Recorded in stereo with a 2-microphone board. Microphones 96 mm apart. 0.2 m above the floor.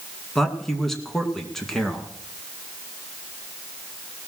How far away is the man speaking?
About 2.5 m.